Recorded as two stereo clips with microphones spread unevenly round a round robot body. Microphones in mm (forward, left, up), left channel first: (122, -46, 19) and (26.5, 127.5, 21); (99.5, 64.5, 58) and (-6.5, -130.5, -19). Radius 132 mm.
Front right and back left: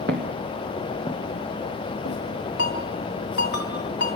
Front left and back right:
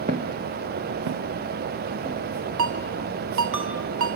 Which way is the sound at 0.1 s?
170° left.